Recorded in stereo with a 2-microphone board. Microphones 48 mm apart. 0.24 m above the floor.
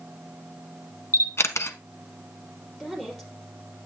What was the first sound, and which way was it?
A camera shutter, 65° left (ahead or behind).